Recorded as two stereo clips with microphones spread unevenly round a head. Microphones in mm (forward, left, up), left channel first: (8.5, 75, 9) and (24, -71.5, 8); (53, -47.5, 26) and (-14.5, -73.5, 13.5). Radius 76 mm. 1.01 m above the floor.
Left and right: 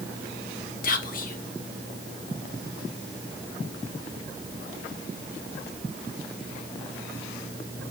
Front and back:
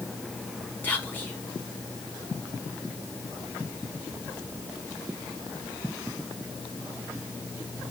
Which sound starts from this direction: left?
Whispering, at 0.8 s.